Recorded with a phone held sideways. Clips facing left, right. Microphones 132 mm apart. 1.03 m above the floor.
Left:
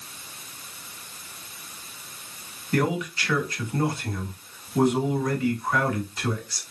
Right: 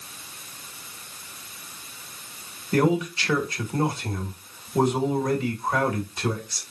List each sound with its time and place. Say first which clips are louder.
2.7 s a man speaking: right 3 dB; 25° right (ahead or behind), 1.9 m